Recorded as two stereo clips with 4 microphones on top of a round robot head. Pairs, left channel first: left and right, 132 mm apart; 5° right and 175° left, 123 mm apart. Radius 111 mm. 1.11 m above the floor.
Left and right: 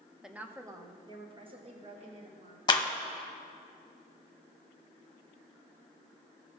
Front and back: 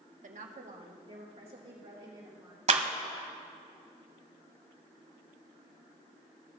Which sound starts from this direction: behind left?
A clap, at 2.7 s.